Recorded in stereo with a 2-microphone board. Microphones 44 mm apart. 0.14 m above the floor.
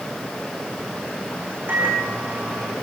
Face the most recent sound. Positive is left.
turn(degrees=-45)  # may be behind; listen again after turning